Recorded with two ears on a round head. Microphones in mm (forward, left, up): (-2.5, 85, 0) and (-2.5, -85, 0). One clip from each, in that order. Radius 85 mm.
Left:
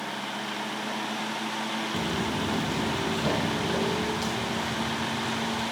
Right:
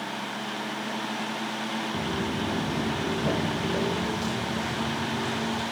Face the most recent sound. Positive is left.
turn(degrees=10)  # may be behind; listen again after turning